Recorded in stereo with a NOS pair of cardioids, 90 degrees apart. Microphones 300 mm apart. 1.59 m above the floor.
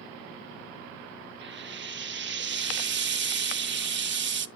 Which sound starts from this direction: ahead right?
Frying, at 1.4 s.